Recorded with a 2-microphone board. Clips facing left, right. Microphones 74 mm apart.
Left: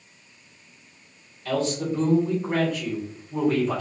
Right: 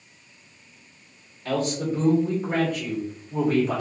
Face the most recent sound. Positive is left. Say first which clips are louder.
# even
turn(degrees=-15)  # may be behind; listen again after turning